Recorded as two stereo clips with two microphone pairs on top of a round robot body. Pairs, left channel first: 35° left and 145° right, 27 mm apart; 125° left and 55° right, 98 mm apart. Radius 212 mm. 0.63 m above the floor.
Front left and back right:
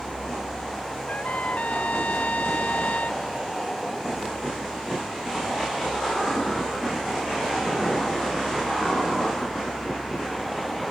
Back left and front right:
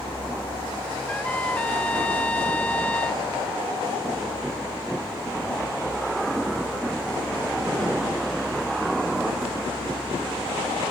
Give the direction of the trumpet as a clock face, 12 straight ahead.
10 o'clock.